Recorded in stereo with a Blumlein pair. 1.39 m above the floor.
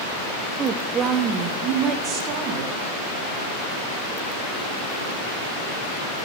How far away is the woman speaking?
About 0.5 m.